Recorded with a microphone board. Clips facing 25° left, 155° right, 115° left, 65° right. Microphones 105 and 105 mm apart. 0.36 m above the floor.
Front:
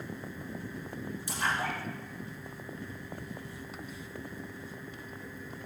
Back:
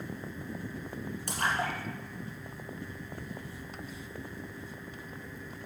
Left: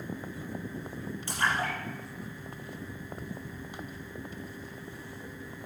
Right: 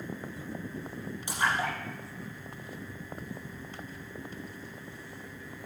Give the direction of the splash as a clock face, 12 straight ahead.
5 o'clock.